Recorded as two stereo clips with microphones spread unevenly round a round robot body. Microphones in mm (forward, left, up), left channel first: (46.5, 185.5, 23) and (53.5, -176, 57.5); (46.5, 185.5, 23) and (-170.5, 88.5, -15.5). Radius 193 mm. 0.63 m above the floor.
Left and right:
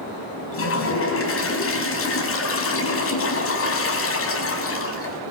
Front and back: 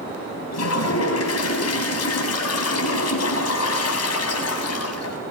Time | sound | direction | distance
0.5 | a toilet flushing | 40° left | 6 m